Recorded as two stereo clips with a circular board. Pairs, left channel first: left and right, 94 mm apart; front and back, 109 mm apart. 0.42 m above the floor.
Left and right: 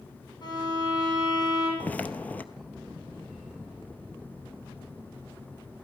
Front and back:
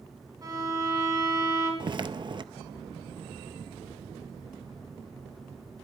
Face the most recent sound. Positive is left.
turn(degrees=155)